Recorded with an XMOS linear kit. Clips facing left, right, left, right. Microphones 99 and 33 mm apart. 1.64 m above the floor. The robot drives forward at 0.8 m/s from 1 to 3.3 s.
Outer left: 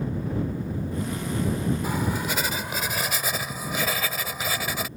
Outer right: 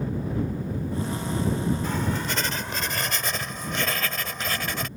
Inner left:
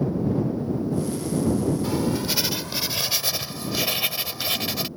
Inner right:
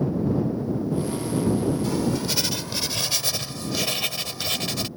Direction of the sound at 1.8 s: 10° left (ahead or behind).